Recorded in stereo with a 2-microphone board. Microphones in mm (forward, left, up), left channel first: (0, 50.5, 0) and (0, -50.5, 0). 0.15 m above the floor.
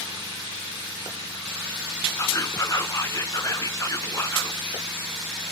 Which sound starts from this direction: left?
Whispering, at 2.2 s.